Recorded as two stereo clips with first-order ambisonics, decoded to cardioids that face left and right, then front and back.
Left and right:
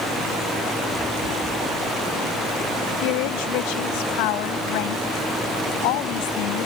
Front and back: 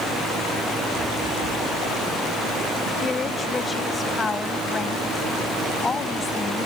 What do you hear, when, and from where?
3.0 s a woman speaking: 80° left